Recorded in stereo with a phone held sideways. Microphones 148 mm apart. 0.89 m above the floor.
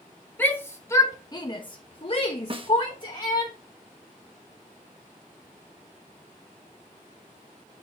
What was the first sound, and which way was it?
A shout, 10° left (ahead or behind).